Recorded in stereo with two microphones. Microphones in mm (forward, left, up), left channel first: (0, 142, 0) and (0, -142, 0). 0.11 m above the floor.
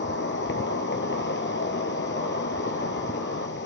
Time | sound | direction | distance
0.0 | an insect | 40° left (ahead or behind) | 1.1 m